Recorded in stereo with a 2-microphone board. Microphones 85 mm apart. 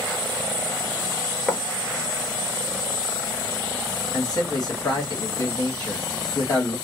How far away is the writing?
About 0.8 m.